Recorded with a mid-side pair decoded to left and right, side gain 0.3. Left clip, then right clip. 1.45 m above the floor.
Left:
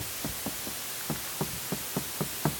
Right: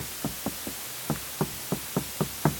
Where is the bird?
No bird in this recording.